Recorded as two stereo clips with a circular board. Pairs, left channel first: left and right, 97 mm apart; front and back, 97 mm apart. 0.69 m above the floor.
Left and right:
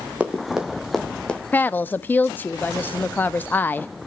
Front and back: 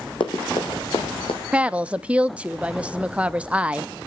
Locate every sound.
0.2 s running footsteps: 15° right, 2.5 m; by 1.4 s 15° left, 2.5 m
1.5 s a woman speaking: 125° left, 0.5 m